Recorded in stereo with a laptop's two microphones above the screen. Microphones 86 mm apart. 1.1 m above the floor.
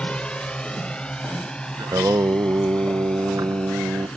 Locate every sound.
0.0 s a drone: 15° left (ahead or behind); by 4.2 s 10° left (ahead or behind)
1.8 s singing: 45° right (ahead or behind)